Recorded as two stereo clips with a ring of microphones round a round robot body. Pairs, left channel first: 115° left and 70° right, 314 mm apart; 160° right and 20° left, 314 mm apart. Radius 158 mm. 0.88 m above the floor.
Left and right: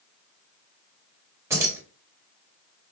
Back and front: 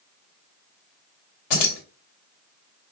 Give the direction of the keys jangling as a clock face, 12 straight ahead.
5 o'clock.